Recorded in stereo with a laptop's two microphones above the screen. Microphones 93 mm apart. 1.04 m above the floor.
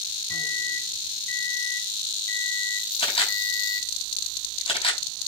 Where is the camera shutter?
75° left (ahead or behind), 5.5 m.